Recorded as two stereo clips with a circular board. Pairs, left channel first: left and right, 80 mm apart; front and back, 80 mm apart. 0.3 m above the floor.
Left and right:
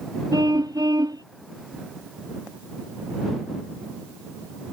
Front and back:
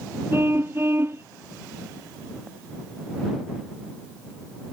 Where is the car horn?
120° right.